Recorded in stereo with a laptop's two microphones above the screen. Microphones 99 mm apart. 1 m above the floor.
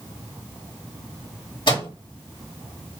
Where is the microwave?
55° left (ahead or behind), 1.9 m.